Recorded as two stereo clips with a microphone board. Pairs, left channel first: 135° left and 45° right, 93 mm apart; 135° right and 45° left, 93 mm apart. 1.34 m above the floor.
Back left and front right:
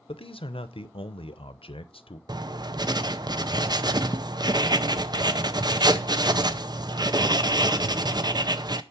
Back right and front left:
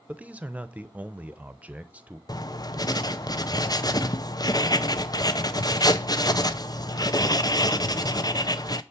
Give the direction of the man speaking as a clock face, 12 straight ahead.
8 o'clock.